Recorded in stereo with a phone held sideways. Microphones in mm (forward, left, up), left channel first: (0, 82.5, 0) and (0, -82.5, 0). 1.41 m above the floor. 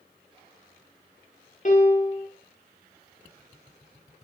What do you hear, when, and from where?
1.6 s a piano: 50° left (ahead or behind), 1.6 m